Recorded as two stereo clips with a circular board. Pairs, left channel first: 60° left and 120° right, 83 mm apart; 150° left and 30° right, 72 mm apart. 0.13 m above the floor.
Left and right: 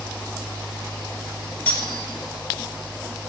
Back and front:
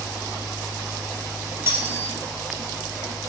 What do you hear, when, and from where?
1.7 s cutlery clinking: straight ahead, 1.0 m